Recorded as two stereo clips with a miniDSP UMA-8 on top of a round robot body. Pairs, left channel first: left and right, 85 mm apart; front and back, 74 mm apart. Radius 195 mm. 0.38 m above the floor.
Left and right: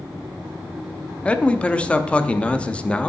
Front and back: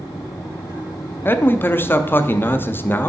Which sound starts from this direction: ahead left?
A man speaking, at 1.2 s.